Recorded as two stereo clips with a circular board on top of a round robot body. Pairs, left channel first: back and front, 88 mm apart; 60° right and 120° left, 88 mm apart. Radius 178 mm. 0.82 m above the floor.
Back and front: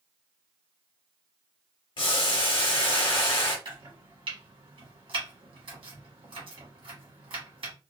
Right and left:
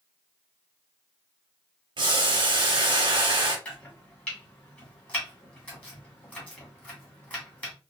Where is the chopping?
15° left, 1.5 m.